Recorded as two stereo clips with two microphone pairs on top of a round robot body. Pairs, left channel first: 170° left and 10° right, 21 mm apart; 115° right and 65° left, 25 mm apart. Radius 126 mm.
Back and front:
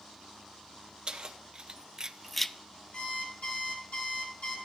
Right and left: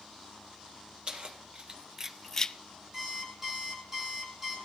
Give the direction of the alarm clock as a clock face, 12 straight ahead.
7 o'clock.